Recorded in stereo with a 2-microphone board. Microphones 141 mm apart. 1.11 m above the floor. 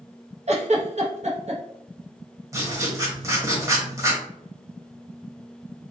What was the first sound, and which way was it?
A giggle, 50° right (ahead or behind).